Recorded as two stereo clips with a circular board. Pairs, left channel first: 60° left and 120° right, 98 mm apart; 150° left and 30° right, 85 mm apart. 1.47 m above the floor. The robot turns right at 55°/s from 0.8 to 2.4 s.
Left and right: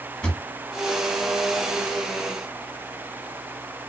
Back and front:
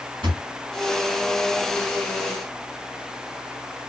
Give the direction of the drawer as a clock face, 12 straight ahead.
1 o'clock.